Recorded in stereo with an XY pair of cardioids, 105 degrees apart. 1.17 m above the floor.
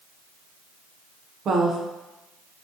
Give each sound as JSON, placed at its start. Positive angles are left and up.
{"t": 1.4, "sound": "a woman speaking", "azimuth_deg": -60, "distance_m": 0.6}